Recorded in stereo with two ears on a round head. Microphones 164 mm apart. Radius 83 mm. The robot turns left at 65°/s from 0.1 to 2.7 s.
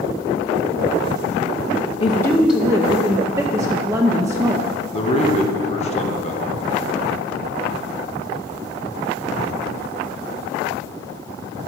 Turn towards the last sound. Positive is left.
turn(degrees=40)  # may be behind; listen again after turning